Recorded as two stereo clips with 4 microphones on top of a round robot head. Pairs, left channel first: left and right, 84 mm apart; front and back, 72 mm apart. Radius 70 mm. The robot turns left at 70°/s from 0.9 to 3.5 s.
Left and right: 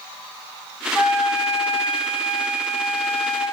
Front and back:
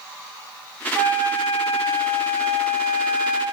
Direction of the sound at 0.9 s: 50° right.